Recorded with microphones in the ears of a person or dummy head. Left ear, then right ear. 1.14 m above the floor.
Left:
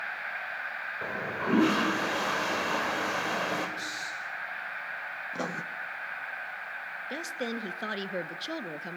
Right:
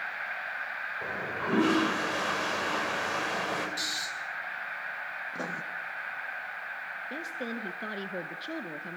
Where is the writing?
20° left (ahead or behind), 0.7 m.